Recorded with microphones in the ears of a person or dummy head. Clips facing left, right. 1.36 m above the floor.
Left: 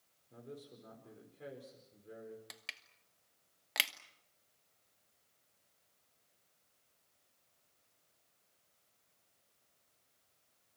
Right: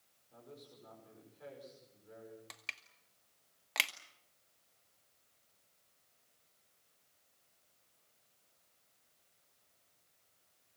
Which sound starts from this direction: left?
A man speaking, at 0.3 s.